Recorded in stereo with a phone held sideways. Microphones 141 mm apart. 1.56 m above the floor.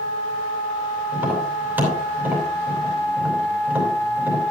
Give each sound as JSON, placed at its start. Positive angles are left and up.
{"t": 1.1, "sound": "tapping", "side_deg": -10, "distance_m": 5.0}